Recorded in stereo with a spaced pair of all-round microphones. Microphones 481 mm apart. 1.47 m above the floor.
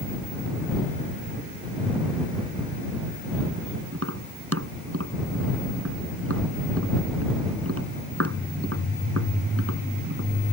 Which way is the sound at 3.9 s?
30° right (ahead or behind).